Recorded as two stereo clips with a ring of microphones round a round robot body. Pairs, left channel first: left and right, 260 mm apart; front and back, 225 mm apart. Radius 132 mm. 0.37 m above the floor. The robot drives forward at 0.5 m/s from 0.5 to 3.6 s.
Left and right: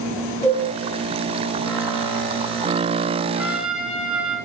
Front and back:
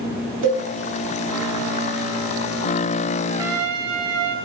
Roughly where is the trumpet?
Behind.